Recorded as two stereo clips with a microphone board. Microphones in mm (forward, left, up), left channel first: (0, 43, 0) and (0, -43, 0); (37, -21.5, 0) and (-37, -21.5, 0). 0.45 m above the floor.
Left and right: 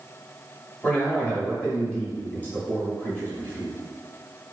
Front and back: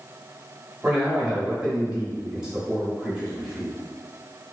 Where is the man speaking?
120° left, 1.1 m.